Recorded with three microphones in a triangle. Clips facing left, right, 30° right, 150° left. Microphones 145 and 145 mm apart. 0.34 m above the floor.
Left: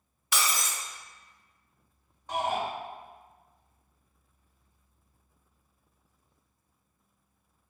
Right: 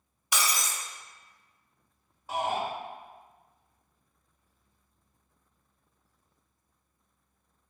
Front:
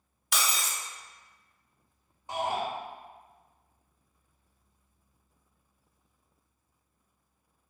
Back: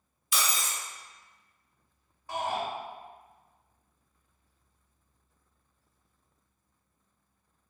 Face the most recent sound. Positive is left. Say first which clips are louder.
# even, front 1 dB
turn(degrees=-20)